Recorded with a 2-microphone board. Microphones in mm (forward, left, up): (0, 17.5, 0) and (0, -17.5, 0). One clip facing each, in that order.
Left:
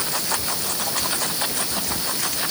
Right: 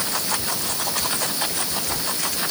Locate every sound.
Only background noise.